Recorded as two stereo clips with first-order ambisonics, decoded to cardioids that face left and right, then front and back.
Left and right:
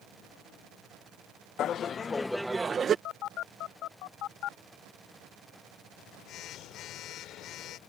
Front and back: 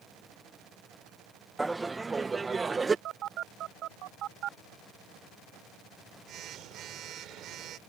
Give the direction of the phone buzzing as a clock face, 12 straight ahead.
8 o'clock.